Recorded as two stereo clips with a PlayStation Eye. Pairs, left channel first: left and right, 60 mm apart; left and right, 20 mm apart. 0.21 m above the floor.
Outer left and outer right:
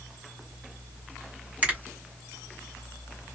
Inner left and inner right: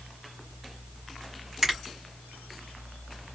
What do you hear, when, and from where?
1.6 s a finger snap: 25° right (ahead or behind), 1.6 m